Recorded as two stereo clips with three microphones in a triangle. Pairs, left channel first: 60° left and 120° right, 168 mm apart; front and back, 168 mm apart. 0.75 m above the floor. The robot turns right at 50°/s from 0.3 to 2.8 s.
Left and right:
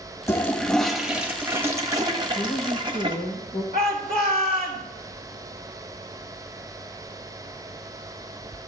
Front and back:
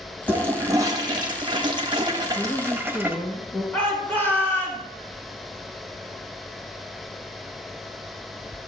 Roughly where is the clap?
No clap in this recording.